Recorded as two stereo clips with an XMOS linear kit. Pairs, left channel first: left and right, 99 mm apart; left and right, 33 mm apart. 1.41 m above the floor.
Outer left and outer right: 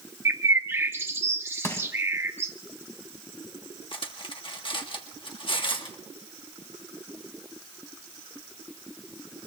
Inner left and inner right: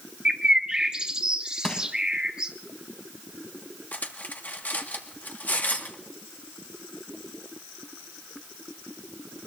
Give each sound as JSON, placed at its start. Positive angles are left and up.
{"t": 0.2, "sound": "a bird", "side_deg": -25, "distance_m": 1.3}
{"t": 1.6, "sound": "crushing", "side_deg": 25, "distance_m": 2.0}
{"t": 3.9, "sound": "cutlery clinking", "side_deg": 55, "distance_m": 1.6}